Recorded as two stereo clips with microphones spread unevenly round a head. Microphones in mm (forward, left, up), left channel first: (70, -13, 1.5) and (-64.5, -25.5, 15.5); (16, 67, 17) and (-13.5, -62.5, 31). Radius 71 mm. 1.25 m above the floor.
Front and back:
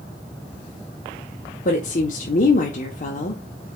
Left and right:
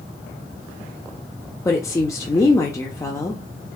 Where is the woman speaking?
15° left, 0.9 m.